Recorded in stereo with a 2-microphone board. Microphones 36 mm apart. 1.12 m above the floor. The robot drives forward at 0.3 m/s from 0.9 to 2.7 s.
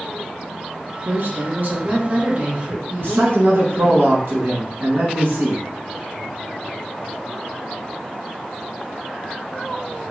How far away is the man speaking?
About 1.0 m.